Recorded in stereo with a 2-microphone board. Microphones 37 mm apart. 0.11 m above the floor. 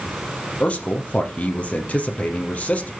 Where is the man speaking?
40° left (ahead or behind), 3.5 m.